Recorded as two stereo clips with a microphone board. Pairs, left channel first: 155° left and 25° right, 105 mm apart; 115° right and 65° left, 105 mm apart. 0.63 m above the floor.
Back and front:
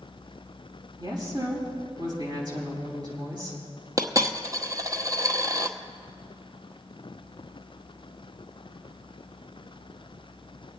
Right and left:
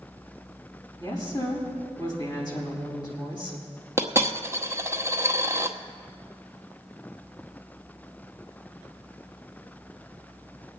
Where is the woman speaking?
70° right, 4.5 m.